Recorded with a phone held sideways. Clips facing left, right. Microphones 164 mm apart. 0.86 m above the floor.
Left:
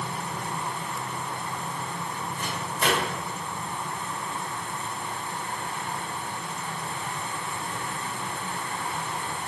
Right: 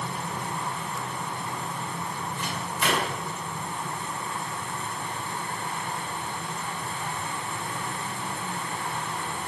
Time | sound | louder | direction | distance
2.4 | a microwave | left 2 dB | 40° left (ahead or behind) | 2.5 m